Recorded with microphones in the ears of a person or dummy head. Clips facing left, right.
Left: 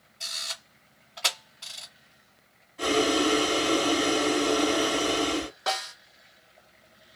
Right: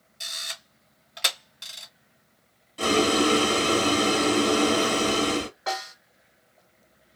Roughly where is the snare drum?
Left.